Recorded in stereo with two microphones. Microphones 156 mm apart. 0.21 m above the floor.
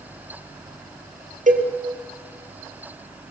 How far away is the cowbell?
About 3.5 m.